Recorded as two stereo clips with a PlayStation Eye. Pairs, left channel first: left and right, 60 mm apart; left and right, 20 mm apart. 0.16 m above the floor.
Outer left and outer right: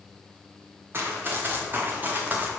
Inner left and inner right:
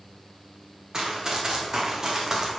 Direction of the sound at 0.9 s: 35° right (ahead or behind).